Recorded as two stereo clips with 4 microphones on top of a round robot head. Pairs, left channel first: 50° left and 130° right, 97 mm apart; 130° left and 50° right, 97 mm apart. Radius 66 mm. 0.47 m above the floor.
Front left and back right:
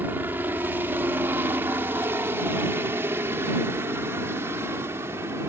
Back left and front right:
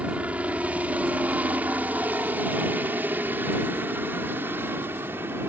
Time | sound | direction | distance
0.0 | a helicopter | 105° right | ?